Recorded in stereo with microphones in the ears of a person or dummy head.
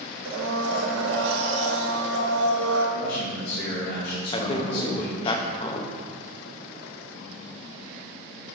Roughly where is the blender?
Right.